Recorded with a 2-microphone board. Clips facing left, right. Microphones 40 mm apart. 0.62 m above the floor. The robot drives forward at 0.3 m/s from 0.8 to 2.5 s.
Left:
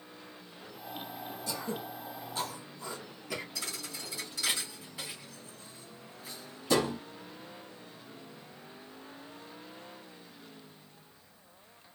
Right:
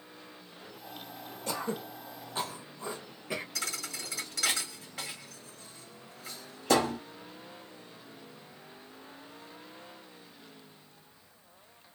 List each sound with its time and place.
1.5 s throat clearing: 50° right (ahead or behind), 0.6 m; by 3.5 s 30° right (ahead or behind), 0.8 m
3.5 s a thud: 80° right, 1.2 m